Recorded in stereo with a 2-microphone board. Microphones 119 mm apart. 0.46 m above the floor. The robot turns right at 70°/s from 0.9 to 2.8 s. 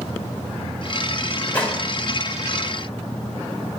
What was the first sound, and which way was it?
A gunshot, 15° left (ahead or behind).